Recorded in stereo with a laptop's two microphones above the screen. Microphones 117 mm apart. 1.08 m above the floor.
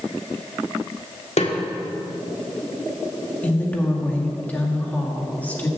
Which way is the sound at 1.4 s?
70° left (ahead or behind).